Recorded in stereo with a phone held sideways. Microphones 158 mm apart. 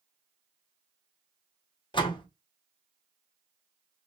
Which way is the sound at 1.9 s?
30° left (ahead or behind).